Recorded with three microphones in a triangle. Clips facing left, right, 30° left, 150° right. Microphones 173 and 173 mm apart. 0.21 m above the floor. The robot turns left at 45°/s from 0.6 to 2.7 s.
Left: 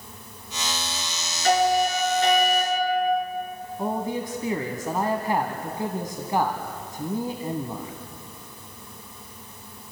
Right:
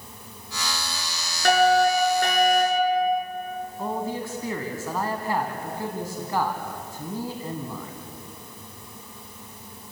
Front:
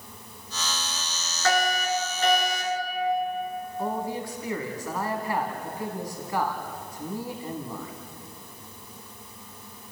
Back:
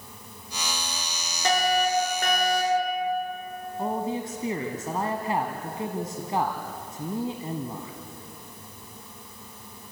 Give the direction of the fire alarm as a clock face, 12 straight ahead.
3 o'clock.